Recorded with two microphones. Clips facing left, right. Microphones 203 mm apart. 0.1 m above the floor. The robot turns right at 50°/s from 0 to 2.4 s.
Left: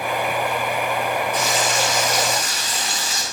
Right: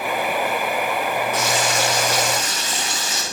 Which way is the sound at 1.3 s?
80° right.